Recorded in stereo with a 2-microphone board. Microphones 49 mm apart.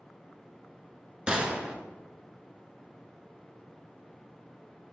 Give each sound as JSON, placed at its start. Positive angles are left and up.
{"t": 1.3, "sound": "a gunshot", "side_deg": -20, "distance_m": 1.3}